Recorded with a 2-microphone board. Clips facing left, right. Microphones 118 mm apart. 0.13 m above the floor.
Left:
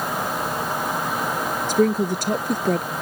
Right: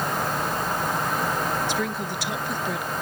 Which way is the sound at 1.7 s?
45° left (ahead or behind).